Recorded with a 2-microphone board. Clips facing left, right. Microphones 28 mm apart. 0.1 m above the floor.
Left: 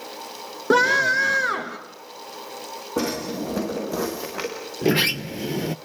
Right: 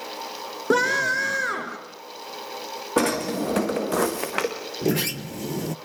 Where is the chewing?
I don't hear chewing.